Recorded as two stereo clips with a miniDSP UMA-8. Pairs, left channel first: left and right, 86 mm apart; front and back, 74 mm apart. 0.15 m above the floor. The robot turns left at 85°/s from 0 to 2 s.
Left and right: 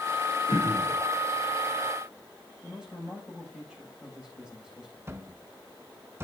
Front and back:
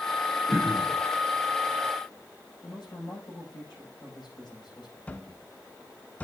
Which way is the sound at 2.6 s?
10° right.